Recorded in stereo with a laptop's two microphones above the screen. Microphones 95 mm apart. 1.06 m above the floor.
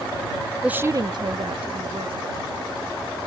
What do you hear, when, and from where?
0.6 s a woman speaking: 10° right (ahead or behind); by 3.3 s 80° right